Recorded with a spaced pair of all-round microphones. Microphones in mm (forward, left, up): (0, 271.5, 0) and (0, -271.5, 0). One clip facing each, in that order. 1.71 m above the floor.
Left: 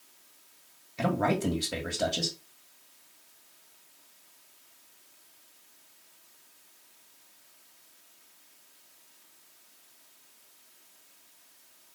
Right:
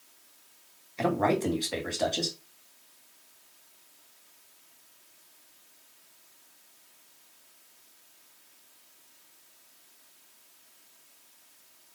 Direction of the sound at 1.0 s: 35° left (ahead or behind).